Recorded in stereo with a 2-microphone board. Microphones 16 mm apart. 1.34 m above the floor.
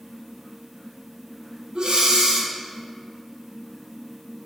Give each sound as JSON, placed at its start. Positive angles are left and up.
{"t": 1.8, "sound": "breathing", "side_deg": -70, "distance_m": 0.6}